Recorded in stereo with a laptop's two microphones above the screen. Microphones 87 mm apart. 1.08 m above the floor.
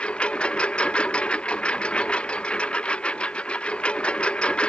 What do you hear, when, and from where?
0.0 s a lawn mower: 10° left (ahead or behind)